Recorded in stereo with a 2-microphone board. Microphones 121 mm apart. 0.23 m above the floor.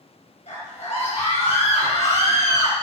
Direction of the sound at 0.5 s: 70° left (ahead or behind).